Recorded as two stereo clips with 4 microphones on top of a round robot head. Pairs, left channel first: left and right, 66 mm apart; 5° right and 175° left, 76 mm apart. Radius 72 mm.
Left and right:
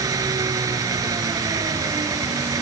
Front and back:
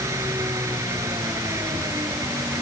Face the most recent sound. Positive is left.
turn(degrees=-125)